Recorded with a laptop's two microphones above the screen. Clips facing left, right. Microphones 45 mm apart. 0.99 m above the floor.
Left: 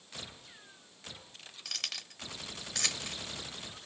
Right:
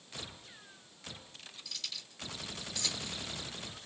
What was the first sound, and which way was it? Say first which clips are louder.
Keys jangling: left 6 dB; 60° left (ahead or behind).